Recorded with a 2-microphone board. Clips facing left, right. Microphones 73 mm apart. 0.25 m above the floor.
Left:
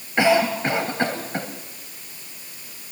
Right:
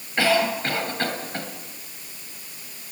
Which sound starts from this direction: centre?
A cough, at 0.2 s.